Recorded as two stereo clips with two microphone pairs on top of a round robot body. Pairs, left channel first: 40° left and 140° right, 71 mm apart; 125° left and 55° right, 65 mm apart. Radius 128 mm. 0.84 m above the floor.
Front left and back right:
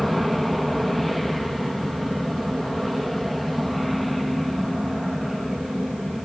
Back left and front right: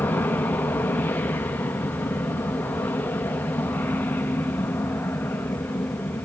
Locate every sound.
0.0 s an aircraft: 135° left